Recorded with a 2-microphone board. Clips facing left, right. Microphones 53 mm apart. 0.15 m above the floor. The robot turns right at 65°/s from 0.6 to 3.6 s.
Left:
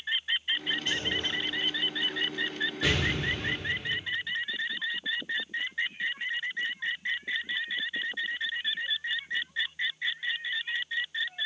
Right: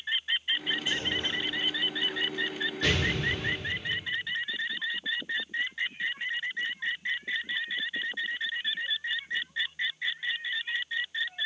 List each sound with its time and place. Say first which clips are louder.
0.9 s a clunk: even; 15° right (ahead or behind), 3 m; by 2.2 s 55° right (ahead or behind), 3 m
2.8 s an explosion: right 1 dB; 5° left, 5 m; by 4.0 s 55° left, 5 m